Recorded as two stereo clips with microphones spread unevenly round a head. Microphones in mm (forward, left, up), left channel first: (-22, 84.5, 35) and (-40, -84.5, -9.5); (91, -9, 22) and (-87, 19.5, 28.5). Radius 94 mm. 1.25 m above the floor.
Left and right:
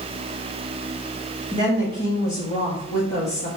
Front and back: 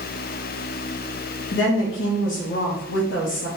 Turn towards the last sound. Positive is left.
turn(degrees=25)